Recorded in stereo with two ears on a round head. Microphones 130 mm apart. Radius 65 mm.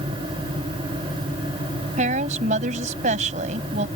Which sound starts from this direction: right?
A woman speaking, at 2.0 s.